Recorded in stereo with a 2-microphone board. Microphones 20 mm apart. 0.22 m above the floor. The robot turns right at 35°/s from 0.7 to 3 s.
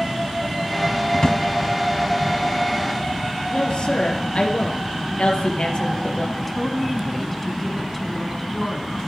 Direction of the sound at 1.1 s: 35° left (ahead or behind).